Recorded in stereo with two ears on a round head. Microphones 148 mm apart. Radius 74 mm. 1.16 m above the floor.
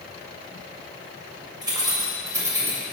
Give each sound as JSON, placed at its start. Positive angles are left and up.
{"t": 1.6, "sound": "keys jangling", "side_deg": -25, "distance_m": 3.5}